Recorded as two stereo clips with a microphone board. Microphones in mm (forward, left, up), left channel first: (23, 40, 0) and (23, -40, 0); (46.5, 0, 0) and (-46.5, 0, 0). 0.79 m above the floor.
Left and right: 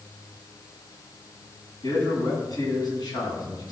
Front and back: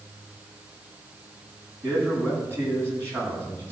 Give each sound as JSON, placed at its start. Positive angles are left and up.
{"t": 1.8, "sound": "a man speaking", "azimuth_deg": 115, "distance_m": 7.0}